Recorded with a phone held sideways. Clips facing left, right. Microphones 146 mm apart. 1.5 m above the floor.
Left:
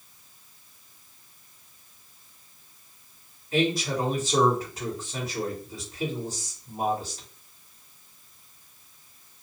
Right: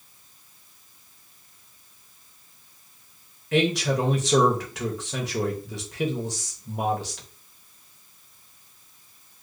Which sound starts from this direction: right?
A man speaking, at 3.5 s.